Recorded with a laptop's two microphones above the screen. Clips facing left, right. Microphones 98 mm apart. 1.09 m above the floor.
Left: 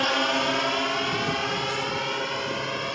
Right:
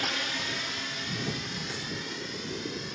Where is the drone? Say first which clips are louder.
Left 11 dB; 60° left (ahead or behind); by 3.0 s 70° left (ahead or behind).